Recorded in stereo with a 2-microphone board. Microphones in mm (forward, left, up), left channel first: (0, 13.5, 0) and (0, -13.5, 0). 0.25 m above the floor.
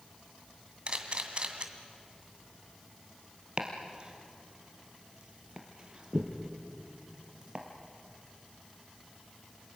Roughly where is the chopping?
Right.